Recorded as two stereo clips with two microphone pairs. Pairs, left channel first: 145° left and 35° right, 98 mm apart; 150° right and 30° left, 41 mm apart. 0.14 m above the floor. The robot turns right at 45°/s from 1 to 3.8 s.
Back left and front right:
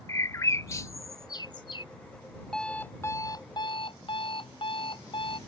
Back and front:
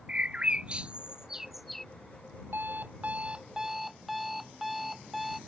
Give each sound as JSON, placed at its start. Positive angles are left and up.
{"t": 0.1, "sound": "a bird", "azimuth_deg": 90}
{"t": 2.5, "sound": "an alarm clock", "azimuth_deg": 60}